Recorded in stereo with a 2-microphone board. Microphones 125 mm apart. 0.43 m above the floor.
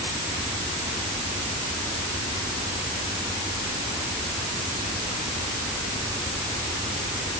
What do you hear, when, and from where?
Only background noise.